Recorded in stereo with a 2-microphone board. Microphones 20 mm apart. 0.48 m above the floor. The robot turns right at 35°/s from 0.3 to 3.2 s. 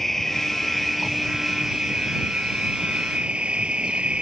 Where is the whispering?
I don't hear whispering.